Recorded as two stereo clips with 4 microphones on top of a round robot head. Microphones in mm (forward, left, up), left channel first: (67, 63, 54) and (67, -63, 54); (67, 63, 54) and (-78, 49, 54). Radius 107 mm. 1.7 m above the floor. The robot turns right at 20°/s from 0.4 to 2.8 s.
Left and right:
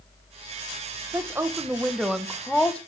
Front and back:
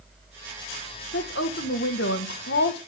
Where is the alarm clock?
I don't hear an alarm clock.